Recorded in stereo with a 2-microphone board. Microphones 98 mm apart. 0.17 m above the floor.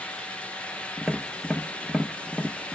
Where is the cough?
I don't hear a cough.